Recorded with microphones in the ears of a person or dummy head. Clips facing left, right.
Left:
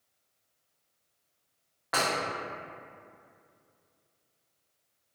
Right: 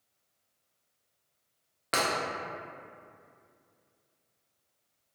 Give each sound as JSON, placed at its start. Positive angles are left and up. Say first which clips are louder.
{"t": 1.9, "sound": "breaking glass", "louder": "even", "side_deg": -30, "distance_m": 0.6}